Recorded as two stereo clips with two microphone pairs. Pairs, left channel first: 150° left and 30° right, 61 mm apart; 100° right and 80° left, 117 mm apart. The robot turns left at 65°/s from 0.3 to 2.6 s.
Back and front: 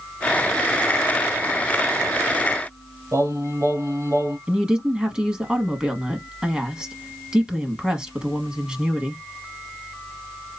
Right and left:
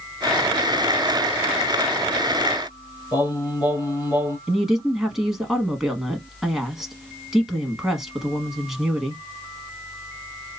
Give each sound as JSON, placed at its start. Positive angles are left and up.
{"t": 3.1, "sound": "singing", "azimuth_deg": -40, "distance_m": 3.0}
{"t": 4.5, "sound": "a woman speaking", "azimuth_deg": 0, "distance_m": 1.0}